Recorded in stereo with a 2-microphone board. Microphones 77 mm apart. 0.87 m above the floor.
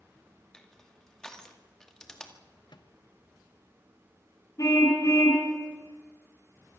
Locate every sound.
0.5 s crushing: 10° left (ahead or behind), 2 m
2.7 s a microwave: 75° left (ahead or behind), 1.0 m
4.6 s a car horn: 45° left (ahead or behind), 4.5 m